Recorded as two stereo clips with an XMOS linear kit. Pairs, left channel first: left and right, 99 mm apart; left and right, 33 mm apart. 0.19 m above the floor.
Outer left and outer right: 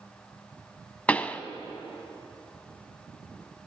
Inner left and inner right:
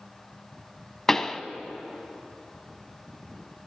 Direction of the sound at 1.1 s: 15° left (ahead or behind).